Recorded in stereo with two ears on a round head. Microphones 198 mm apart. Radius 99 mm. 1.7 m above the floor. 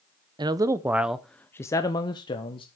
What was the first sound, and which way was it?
A man speaking, 20° right (ahead or behind).